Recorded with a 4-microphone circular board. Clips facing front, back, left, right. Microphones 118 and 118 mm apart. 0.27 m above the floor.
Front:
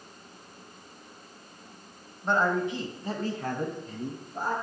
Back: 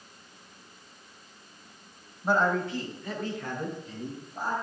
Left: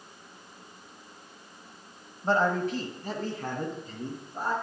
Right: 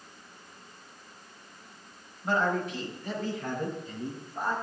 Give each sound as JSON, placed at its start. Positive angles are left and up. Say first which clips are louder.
{"t": 2.2, "sound": "a man speaking", "louder": "even, left 3 dB", "azimuth_deg": 110, "distance_m": 1.1}